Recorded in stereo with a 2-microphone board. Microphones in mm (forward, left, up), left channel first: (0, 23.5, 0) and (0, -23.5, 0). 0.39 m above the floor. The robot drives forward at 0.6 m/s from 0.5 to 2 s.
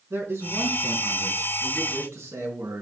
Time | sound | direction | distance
0.1 | a man speaking | 60° right (ahead or behind) | 5.5 m